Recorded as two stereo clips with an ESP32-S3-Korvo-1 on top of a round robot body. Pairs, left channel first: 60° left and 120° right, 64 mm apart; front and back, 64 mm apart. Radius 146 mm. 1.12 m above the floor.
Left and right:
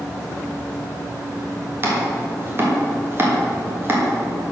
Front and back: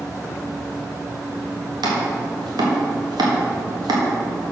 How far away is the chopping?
About 1.7 m.